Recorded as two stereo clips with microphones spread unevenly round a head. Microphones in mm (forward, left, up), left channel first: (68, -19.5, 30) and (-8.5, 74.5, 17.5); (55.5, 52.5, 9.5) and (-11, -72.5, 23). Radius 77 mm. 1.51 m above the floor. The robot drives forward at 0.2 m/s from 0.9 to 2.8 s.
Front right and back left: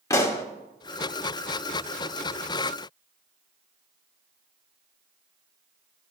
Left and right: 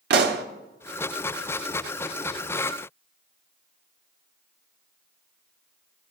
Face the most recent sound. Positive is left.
turn(degrees=-140)